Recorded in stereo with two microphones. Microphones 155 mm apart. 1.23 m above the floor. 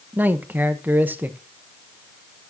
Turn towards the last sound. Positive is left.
turn(degrees=-10)  # may be behind; listen again after turning